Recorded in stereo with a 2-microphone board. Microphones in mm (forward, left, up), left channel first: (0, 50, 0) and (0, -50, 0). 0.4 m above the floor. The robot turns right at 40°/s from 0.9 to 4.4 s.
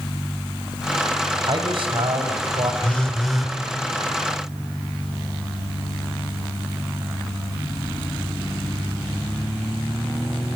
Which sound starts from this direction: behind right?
A man speaking, at 1.4 s.